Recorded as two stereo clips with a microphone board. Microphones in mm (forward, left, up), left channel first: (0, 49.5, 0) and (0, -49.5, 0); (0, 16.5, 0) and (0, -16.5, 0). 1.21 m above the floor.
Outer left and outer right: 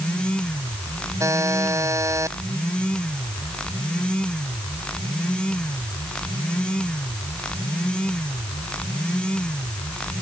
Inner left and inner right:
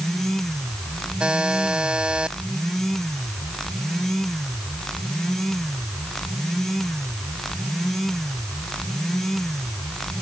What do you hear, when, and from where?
1.2 s a buzzer: 30° right (ahead or behind)